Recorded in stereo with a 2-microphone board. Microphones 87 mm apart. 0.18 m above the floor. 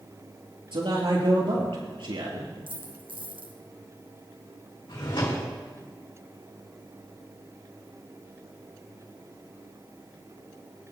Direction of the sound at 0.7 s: 70° right (ahead or behind).